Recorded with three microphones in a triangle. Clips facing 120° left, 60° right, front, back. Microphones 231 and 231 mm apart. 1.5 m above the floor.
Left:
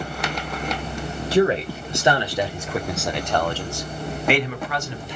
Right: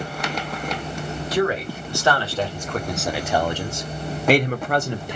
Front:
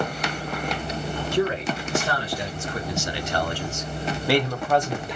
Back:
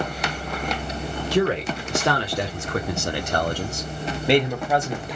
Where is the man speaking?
175° right, 1.7 m; by 5.2 s 90° right, 1.1 m.